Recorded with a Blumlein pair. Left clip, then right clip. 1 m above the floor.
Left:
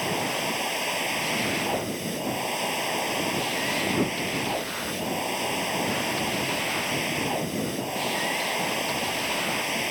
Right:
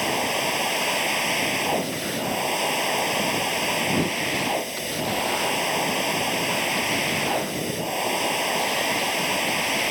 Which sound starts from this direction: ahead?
A machine running, at 0.0 s.